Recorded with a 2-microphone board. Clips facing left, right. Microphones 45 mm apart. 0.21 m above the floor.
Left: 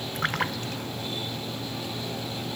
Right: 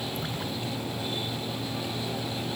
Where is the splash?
65° left (ahead or behind).